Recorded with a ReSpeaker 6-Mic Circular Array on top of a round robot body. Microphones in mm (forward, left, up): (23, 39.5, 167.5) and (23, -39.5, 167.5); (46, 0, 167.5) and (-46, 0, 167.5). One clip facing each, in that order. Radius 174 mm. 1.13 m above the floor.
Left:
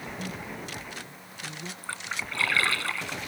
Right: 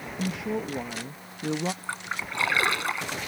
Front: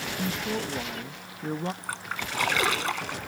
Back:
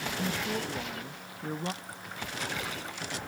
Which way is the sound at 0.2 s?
80° right.